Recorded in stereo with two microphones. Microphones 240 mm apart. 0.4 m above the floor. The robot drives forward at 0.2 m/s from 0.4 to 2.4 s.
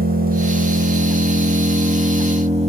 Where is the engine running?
35° right (ahead or behind), 0.8 m; by 2.7 s 25° right (ahead or behind), 1.1 m.